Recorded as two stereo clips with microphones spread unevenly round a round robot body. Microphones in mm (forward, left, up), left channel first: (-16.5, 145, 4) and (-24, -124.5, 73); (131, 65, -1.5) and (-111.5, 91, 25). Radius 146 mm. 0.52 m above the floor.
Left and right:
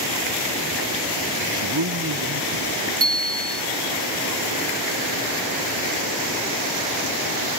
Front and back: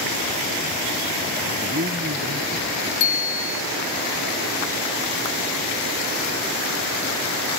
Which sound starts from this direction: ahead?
A bicycle bell, at 3.0 s.